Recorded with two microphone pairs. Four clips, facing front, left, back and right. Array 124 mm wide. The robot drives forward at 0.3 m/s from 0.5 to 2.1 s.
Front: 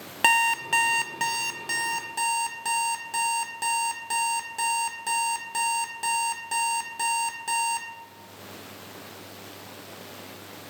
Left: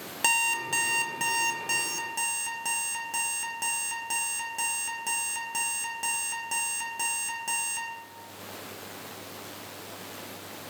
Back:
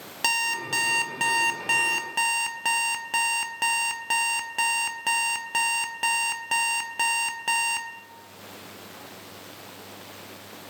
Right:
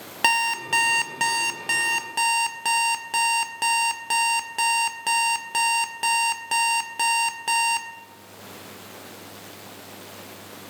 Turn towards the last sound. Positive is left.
turn(degrees=-140)